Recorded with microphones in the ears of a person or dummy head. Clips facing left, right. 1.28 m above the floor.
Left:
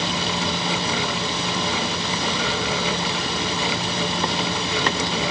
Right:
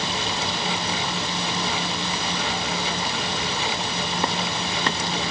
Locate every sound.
Only background noise.